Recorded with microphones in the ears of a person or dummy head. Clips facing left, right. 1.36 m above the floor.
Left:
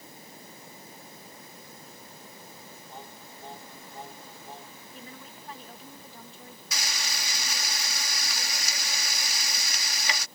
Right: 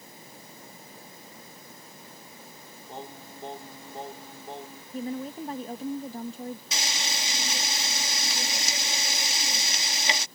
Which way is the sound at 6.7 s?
20° right (ahead or behind).